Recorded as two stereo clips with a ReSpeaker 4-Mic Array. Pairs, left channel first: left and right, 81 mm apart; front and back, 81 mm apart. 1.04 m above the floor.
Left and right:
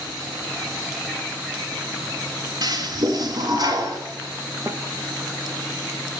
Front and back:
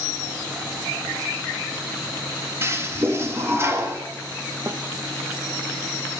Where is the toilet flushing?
125° right, 2 m.